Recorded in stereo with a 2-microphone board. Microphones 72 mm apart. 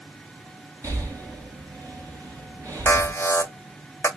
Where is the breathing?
35° right (ahead or behind), 3.5 m.